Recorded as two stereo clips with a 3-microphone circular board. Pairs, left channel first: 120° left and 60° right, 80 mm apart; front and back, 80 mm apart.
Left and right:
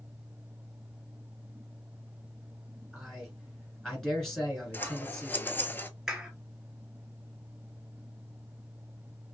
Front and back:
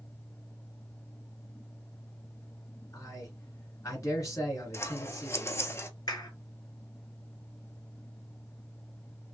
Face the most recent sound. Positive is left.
turn(degrees=25)